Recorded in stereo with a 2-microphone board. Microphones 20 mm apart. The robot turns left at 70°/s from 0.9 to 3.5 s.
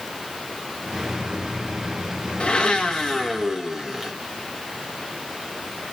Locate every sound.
2.4 s a blender: 65° left, 2 m; by 4.1 s 10° right, 2 m